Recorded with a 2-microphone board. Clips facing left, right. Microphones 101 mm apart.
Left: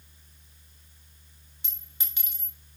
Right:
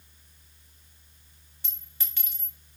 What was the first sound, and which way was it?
A clink, 20° left (ahead or behind).